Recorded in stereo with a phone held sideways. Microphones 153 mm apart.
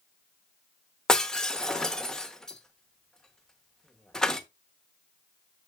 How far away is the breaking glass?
About 0.9 m.